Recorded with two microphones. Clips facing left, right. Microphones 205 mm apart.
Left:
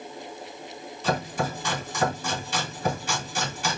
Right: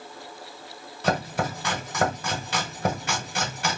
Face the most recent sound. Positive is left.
turn(degrees=-65)  # may be behind; listen again after turning